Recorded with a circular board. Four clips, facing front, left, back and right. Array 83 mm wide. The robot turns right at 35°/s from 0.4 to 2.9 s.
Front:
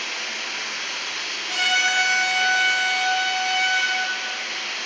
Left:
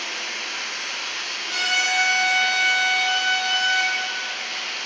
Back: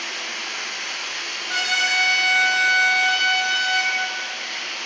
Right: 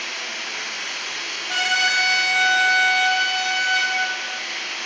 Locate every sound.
0.0 s running water: 170° right, 0.9 m; by 4.9 s 80° right, 0.9 m
1.5 s a trumpet: 115° right, 1.1 m; by 4.0 s 65° right, 1.1 m